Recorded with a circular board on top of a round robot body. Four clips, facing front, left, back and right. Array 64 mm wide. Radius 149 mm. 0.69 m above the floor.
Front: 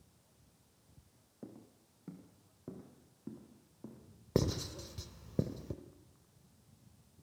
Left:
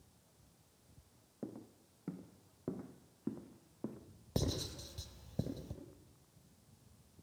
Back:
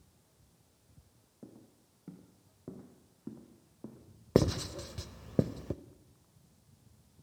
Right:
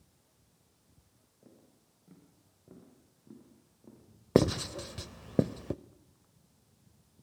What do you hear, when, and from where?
1.4 s footsteps: 80° left, 2.5 m; by 4.0 s 100° left, 4 m
4.3 s writing: 110° right, 0.7 m